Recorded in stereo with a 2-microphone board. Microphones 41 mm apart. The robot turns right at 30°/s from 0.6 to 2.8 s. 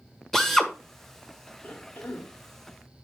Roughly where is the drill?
Centre.